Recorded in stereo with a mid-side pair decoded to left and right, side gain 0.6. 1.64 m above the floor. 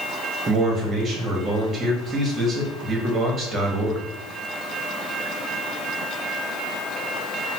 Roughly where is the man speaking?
Ahead right.